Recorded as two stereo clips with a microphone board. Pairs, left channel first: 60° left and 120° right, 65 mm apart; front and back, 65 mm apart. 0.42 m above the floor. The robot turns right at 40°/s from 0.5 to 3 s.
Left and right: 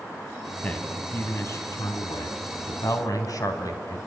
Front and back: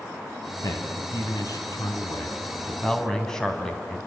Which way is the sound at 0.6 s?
15° right.